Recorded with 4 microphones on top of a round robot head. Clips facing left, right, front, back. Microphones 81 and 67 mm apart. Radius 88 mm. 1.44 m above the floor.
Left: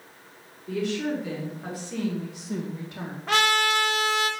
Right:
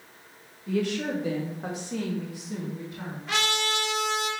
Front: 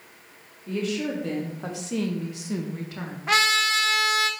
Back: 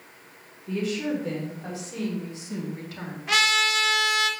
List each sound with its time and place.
0.7 s a woman speaking: 40° right, 2.5 m; by 3.2 s 70° left, 1.4 m
3.3 s a trumpet: 50° left, 0.9 m